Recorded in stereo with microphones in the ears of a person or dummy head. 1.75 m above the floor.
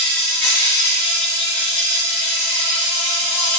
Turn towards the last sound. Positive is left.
turn(degrees=5)  # may be behind; listen again after turning